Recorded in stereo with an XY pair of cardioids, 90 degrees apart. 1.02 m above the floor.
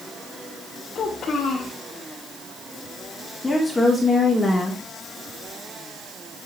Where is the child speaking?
60° left, 2.5 m.